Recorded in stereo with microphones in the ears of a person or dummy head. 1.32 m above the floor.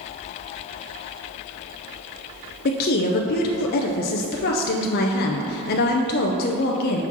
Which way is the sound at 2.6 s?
55° left (ahead or behind).